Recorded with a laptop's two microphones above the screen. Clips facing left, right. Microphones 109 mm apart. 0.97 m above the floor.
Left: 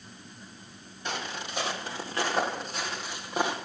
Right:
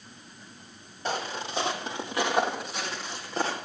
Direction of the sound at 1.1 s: 35° right (ahead or behind).